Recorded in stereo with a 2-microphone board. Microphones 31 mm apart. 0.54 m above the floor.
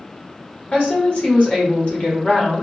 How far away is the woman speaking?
About 1.3 m.